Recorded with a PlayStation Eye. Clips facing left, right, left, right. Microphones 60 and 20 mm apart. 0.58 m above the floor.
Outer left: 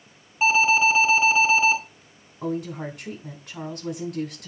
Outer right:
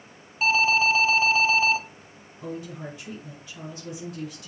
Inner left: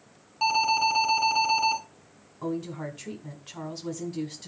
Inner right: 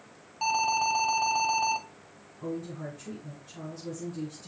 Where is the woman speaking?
65° left (ahead or behind), 2 m.